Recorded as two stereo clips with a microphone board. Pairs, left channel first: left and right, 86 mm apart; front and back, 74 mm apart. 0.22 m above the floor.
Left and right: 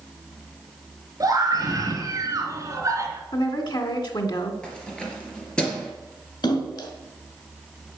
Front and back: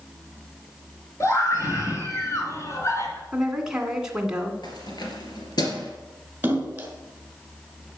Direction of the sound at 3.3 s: 100° left.